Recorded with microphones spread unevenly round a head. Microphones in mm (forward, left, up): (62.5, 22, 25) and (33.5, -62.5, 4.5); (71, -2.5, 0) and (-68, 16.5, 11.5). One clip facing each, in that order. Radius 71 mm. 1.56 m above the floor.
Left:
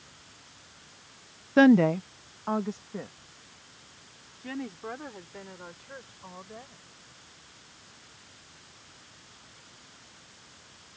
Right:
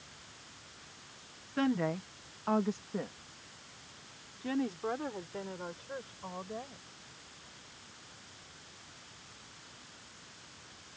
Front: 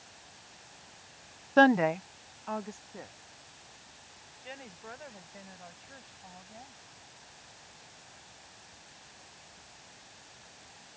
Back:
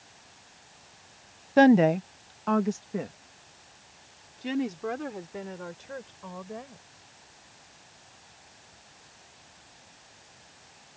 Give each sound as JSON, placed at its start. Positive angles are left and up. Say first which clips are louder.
{"t": 1.6, "sound": "a woman speaking", "louder": "left 13 dB, back 5 dB", "azimuth_deg": 95}